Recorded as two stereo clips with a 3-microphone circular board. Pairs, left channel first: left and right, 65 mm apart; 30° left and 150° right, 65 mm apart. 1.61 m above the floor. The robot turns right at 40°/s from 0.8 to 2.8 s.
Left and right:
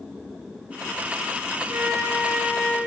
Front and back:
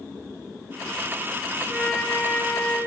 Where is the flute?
75° right, 2.5 m; by 2.8 s 30° right, 2.5 m.